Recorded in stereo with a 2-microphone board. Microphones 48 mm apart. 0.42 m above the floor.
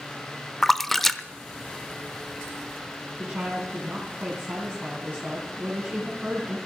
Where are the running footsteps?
I don't hear running footsteps.